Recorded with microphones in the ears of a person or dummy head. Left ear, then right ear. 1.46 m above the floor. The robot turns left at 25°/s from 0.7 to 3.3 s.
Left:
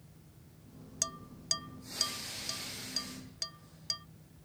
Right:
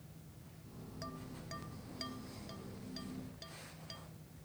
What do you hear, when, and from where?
1.0 s dishes clattering: 75° left (ahead or behind); by 4.1 s 45° left (ahead or behind)